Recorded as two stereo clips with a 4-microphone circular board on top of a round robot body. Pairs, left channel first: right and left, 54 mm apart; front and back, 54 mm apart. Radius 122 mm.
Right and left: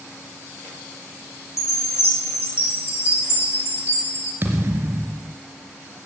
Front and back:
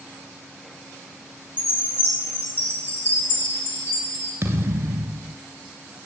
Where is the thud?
145° left, 1.5 m.